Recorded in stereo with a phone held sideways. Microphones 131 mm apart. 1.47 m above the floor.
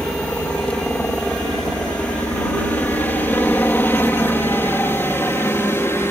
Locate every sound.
0.0 s a helicopter: 10° left (ahead or behind); by 6.1 s 20° left (ahead or behind)